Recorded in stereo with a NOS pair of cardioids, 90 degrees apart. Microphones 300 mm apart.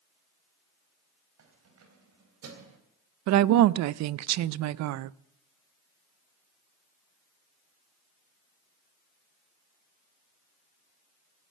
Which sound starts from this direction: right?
A woman speaking, at 3.3 s.